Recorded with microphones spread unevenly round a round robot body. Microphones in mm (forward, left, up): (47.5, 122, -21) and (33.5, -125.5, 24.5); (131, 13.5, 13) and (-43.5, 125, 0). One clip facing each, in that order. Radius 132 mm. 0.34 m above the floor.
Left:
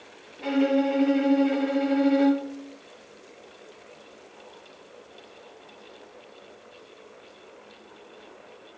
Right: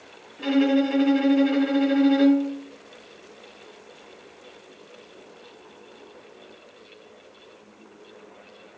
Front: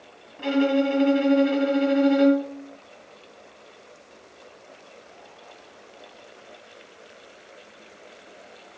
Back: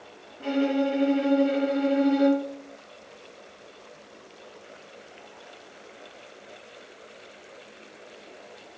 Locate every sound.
0.4 s a violin: 25° right, 1.8 m